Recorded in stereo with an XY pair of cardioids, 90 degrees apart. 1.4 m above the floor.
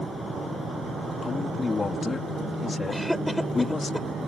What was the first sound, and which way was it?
A man speaking, 45° left.